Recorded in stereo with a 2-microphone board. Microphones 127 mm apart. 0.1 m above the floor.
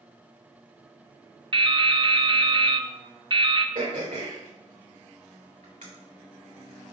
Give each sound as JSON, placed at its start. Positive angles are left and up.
{"t": 1.5, "sound": "dripping", "side_deg": -45, "distance_m": 0.6}
{"t": 3.8, "sound": "throat clearing", "side_deg": -85, "distance_m": 3.0}